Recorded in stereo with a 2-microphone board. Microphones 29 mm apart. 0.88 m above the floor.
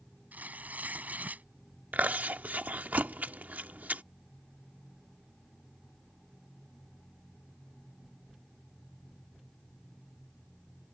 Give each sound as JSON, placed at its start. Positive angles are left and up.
{"t": 0.3, "sound": "tearing paper", "side_deg": -75}
{"t": 1.9, "sound": "chewing", "side_deg": -75}